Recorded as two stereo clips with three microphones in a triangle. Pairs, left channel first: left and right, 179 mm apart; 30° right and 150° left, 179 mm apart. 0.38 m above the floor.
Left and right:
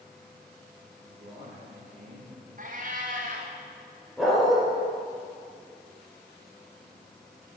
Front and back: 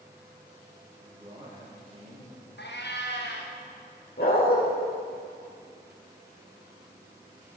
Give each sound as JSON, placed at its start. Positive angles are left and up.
{"t": 1.0, "sound": "a man speaking", "azimuth_deg": -140, "distance_m": 8.0}
{"t": 2.6, "sound": "a cat meowing", "azimuth_deg": -50, "distance_m": 5.0}
{"t": 4.2, "sound": "a dog barking", "azimuth_deg": 0, "distance_m": 9.0}